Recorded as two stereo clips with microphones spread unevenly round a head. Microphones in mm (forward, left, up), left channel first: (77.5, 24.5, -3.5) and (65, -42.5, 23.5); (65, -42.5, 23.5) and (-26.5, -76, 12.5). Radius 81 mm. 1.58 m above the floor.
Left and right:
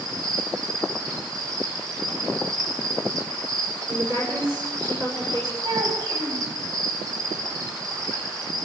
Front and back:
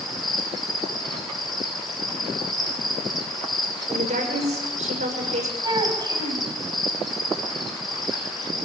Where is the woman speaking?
170° right, 7 m.